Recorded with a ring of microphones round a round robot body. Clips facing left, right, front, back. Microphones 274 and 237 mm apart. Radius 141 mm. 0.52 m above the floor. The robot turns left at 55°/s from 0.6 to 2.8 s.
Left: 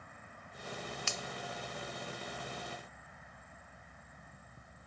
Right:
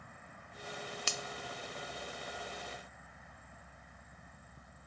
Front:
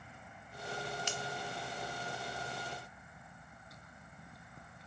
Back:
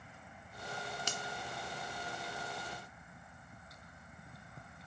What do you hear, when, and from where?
1.1 s a finger snap: 135° right, 0.9 m; by 1.2 s 145° right, 0.9 m